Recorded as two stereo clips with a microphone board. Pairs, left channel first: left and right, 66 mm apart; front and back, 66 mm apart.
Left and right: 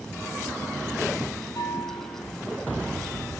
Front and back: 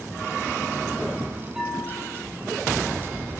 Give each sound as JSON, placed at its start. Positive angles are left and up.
{"t": 1.6, "sound": "a bell", "azimuth_deg": 95, "distance_m": 5.0}